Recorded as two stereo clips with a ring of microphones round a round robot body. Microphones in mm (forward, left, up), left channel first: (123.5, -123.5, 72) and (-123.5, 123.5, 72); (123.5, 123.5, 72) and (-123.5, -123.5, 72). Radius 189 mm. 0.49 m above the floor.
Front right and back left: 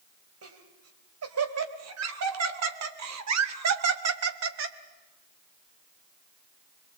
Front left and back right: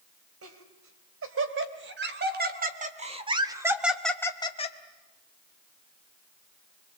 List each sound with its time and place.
0.4 s laughter: straight behind, 3.5 m; by 4.8 s 105° left, 1.5 m